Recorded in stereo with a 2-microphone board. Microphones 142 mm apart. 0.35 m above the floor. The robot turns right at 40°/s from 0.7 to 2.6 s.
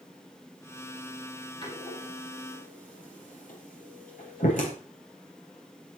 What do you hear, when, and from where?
1.6 s a door slam: 30° left (ahead or behind), 6.5 m; by 4.7 s 70° left (ahead or behind), 6.5 m